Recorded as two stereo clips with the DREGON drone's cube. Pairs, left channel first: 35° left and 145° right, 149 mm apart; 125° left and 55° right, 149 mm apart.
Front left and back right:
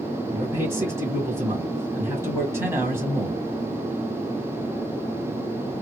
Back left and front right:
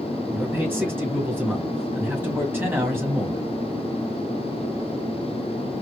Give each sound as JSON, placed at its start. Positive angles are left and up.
{"t": 0.3, "sound": "a man speaking", "azimuth_deg": -110, "distance_m": 1.7}